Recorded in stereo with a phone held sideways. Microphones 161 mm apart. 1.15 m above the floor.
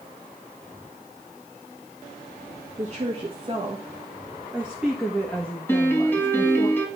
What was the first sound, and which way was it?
A woman speaking, 45° right (ahead or behind).